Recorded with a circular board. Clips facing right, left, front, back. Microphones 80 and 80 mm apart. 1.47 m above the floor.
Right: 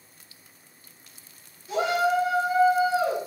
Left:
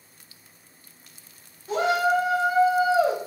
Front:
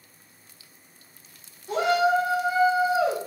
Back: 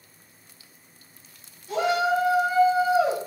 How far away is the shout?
About 1.5 m.